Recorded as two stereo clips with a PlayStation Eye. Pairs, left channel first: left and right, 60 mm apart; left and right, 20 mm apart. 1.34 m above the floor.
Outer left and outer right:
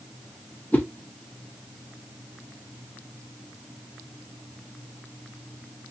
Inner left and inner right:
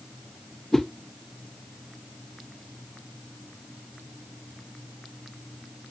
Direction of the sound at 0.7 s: 30° left (ahead or behind).